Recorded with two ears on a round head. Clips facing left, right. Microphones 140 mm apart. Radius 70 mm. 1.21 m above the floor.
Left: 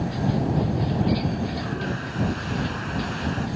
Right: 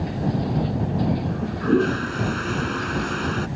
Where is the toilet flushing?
60° right (ahead or behind).